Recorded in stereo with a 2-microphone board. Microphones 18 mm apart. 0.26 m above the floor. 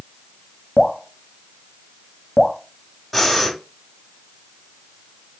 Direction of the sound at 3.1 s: 10° left (ahead or behind).